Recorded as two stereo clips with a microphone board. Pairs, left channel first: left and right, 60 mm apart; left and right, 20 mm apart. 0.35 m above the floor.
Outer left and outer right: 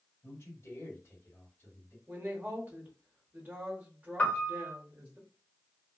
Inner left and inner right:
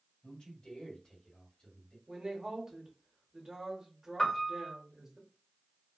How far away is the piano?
About 1.1 m.